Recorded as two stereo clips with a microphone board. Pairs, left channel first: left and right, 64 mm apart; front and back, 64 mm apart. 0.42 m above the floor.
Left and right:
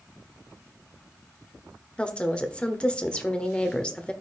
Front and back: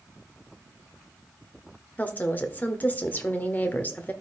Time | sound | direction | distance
2.0 | a woman speaking | 30° left | 1.0 m